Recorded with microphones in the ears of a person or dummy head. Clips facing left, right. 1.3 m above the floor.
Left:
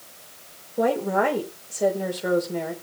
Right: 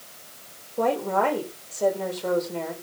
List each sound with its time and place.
0.8 s a woman speaking: 10° left (ahead or behind), 4 m